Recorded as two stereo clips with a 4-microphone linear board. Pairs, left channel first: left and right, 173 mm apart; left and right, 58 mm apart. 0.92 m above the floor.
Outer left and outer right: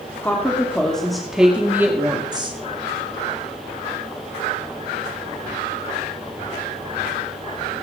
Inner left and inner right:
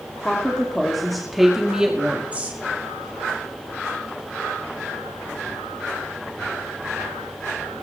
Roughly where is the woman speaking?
Centre.